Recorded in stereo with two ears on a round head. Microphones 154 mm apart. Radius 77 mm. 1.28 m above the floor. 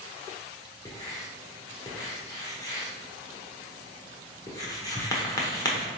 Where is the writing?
20° left (ahead or behind), 0.8 m.